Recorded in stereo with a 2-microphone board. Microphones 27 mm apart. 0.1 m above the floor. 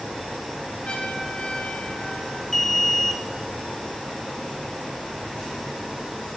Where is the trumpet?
40° left (ahead or behind), 7 m.